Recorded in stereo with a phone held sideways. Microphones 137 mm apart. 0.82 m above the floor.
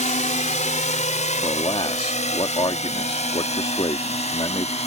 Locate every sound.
0.0 s a drone: 60° left (ahead or behind); by 4.9 s 50° left (ahead or behind)
1.4 s a man speaking: 40° left (ahead or behind)